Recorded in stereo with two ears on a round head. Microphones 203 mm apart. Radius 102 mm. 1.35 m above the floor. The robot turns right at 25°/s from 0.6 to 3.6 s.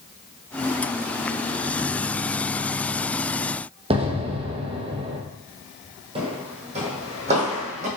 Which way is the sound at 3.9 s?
25° right (ahead or behind).